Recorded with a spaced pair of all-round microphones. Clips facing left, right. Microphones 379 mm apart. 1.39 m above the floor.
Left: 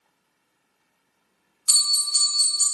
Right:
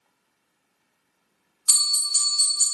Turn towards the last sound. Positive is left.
turn(degrees=70)  # may be behind; listen again after turning